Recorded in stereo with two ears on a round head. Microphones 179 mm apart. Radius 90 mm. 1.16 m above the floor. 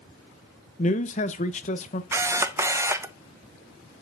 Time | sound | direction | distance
0.8 | a man speaking | 35° left (ahead or behind) | 0.8 m
2.1 | a camera shutter | 15° right (ahead or behind) | 0.6 m